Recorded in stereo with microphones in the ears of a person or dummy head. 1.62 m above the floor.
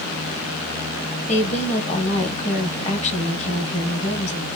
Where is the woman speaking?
35° left (ahead or behind), 1.2 m.